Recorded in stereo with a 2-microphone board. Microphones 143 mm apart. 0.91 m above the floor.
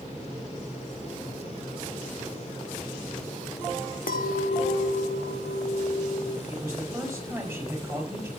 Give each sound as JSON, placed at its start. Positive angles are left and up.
{"t": 4.1, "sound": "a clink", "side_deg": 75, "distance_m": 1.0}
{"t": 6.5, "sound": "a man speaking", "side_deg": -20, "distance_m": 5.0}